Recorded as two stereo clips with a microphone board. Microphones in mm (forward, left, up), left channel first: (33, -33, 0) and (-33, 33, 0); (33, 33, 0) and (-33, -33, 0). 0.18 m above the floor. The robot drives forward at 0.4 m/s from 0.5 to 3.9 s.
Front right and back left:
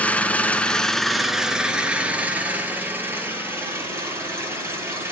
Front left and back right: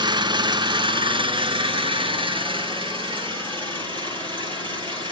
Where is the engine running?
120° right, 0.7 m; by 5.1 s 160° right, 1.8 m.